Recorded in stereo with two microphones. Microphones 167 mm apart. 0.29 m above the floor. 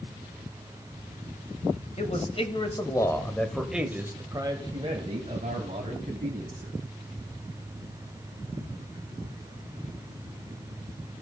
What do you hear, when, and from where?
2.0 s a man speaking: 40° left (ahead or behind), 1.2 m; by 6.8 s 50° right (ahead or behind), 2 m